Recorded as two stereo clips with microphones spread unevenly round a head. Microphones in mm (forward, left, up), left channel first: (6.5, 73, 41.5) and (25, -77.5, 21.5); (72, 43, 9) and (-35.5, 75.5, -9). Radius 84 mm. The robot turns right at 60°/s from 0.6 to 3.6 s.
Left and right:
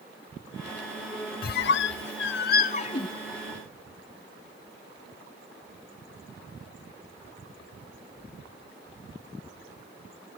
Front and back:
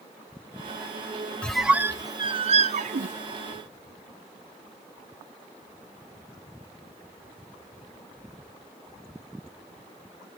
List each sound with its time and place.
1.4 s a squeak: 65° left, 0.6 m; by 3.1 s 170° left, 0.6 m